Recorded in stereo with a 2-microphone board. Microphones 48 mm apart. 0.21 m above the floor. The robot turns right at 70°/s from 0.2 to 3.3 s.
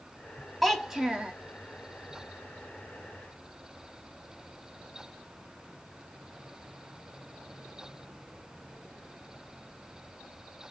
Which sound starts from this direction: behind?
A child speaking, at 0.6 s.